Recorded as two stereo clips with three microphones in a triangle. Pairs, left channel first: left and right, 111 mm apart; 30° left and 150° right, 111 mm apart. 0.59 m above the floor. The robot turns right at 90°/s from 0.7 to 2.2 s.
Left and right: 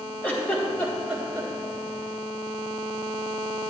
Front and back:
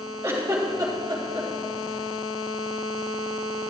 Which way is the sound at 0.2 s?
155° left.